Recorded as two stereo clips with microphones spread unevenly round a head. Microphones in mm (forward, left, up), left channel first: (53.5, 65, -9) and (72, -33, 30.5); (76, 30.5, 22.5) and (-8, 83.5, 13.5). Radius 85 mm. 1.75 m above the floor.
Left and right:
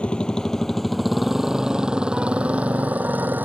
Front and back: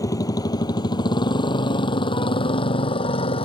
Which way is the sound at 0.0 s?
20° left.